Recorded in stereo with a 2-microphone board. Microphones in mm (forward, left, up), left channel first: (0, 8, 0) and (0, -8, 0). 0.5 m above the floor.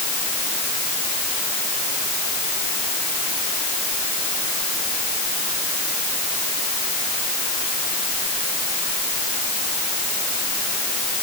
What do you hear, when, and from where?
Only background noise.